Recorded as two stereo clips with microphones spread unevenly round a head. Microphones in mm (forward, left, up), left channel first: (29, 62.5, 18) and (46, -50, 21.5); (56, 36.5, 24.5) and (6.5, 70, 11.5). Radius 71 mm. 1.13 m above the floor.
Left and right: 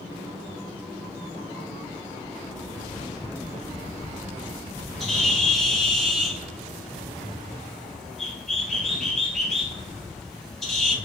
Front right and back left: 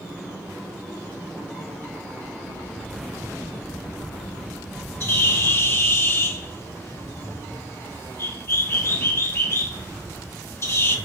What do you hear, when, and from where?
5.0 s a bird: 10° left, 1.9 m